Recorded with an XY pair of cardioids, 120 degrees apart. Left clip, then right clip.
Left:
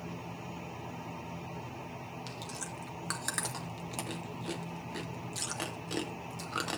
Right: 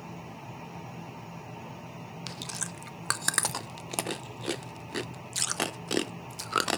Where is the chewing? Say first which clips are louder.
Right 7 dB; 50° right, 0.6 m.